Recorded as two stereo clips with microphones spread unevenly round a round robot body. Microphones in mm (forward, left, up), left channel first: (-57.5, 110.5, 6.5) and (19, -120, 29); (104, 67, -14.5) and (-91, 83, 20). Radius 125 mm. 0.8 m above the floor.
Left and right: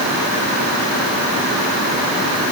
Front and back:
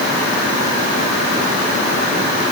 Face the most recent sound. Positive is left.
No sound to turn to.